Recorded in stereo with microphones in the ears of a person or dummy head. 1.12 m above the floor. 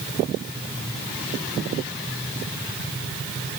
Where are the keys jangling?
No keys jangling in this recording.